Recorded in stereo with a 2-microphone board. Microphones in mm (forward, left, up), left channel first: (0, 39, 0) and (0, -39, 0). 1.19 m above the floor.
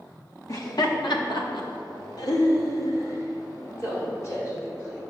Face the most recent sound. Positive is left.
turn(degrees=35)  # may be behind; listen again after turning